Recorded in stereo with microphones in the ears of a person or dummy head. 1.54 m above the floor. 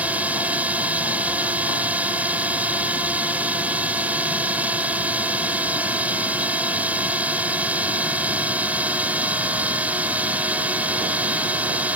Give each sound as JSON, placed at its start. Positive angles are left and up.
{"t": 0.0, "sound": "a drone", "side_deg": -10}